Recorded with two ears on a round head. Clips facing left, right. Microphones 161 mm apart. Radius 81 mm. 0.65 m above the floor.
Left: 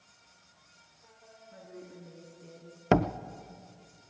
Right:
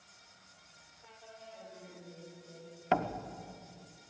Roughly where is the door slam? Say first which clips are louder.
Left 6 dB; left.